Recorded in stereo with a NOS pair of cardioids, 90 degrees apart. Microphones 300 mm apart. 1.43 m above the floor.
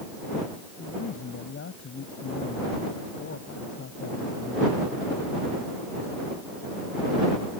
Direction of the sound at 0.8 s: 45° left.